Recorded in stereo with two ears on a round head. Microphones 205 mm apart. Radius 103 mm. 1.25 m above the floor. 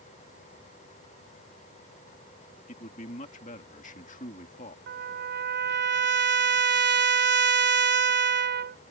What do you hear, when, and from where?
2.7 s a man speaking: 35° left (ahead or behind)
4.9 s a trumpet: 50° right (ahead or behind)